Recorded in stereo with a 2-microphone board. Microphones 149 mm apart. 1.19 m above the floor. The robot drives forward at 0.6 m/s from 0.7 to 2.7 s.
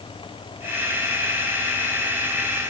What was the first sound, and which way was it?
Only background noise.